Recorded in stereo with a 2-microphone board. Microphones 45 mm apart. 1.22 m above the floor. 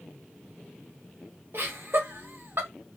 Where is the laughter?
55° right (ahead or behind), 1.0 m.